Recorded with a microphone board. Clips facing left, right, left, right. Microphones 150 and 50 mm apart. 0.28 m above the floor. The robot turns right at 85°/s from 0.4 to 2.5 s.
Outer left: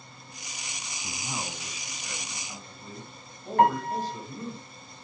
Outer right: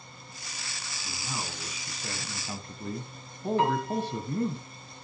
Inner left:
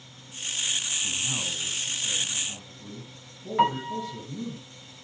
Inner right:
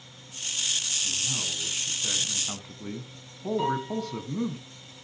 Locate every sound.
1.0 s a man speaking: 140° left, 2.5 m; by 4.6 s 95° right, 2.5 m
3.6 s a piano: 55° left (ahead or behind), 3 m